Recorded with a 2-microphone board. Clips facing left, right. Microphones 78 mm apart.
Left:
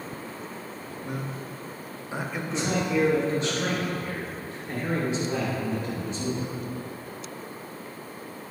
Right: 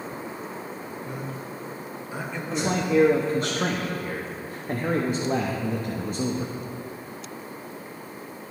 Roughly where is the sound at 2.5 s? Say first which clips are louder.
Right 3 dB; right.